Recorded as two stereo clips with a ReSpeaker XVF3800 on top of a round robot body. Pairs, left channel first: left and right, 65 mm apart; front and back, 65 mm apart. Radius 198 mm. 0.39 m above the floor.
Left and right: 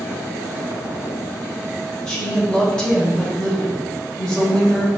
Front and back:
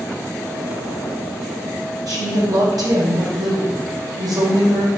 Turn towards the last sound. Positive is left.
turn(degrees=170)